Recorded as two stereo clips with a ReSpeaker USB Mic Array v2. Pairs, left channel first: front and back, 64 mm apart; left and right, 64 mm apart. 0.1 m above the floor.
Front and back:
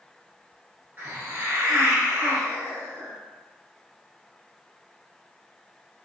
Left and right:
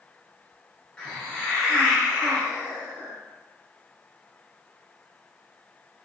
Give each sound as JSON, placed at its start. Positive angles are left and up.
{"t": 1.0, "sound": "a hiss", "azimuth_deg": 160, "distance_m": 1.1}